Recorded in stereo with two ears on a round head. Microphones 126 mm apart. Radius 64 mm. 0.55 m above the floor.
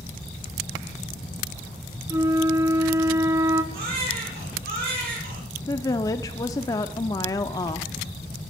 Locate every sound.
2.1 s a flute: 20° right (ahead or behind), 1.3 m
3.7 s a baby crying: 75° right (ahead or behind), 8.5 m
5.7 s a woman speaking: 25° left (ahead or behind), 0.6 m